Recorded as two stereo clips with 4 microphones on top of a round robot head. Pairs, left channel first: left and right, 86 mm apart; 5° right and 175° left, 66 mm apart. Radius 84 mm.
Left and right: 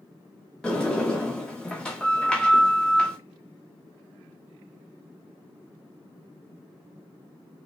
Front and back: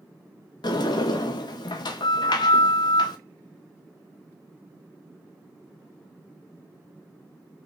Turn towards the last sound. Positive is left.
turn(degrees=10)